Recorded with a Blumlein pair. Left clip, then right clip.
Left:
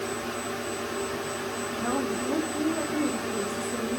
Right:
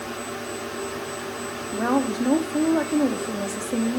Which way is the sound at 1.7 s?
30° right.